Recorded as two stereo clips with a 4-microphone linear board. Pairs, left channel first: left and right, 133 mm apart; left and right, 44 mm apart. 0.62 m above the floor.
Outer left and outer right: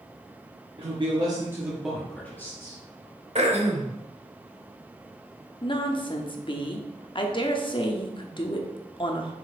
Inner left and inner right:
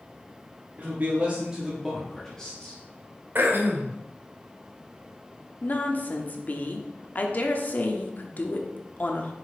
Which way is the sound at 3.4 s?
55° right (ahead or behind).